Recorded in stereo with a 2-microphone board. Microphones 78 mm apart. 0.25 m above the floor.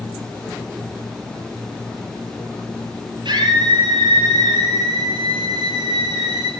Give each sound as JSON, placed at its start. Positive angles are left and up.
{"t": 3.2, "sound": "a scream", "side_deg": -75, "distance_m": 6.0}